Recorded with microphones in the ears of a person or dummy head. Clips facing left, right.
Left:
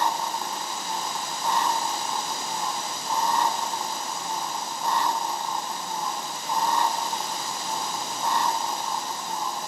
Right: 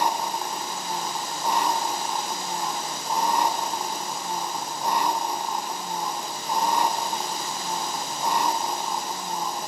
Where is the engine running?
10° right (ahead or behind).